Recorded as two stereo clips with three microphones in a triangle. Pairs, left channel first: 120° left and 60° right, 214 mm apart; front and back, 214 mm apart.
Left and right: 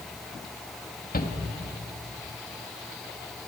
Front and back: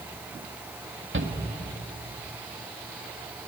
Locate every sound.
1.1 s a shout: 165° left, 2 m